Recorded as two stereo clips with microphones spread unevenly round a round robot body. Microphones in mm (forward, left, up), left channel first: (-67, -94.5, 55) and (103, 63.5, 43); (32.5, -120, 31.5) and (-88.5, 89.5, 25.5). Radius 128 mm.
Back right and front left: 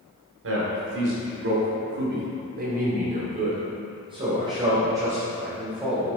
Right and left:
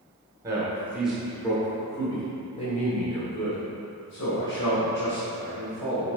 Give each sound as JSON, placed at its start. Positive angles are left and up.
{"t": 0.4, "sound": "a man speaking", "azimuth_deg": 45, "distance_m": 2.0}